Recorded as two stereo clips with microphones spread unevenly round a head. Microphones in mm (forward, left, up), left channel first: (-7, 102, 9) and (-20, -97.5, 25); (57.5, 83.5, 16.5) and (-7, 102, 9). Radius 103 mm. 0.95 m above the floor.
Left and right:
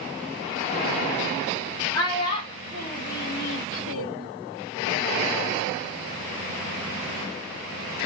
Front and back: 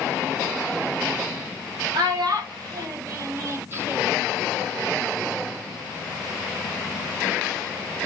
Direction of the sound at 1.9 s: 155° left.